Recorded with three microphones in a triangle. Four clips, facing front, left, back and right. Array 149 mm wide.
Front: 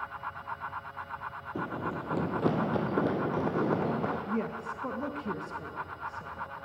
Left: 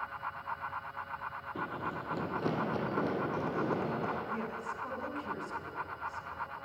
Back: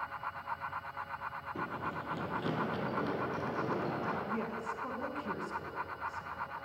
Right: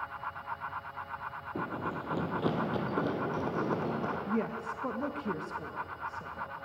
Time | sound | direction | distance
1.6 | running footsteps | 40° right | 1.8 m
4.3 | a woman speaking | 60° right | 2 m